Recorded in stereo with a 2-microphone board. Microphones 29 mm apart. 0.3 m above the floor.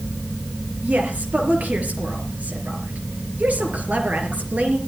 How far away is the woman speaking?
About 4.5 m.